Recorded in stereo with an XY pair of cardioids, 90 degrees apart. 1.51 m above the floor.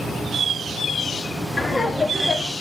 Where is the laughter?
30° left, 1.9 m.